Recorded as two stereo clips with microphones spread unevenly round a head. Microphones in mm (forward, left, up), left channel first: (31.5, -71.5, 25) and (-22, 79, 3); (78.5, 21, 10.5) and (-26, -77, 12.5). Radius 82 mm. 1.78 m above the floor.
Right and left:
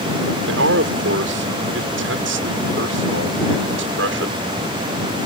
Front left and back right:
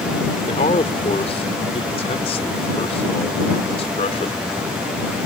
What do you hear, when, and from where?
0.5 s a man speaking: 100° left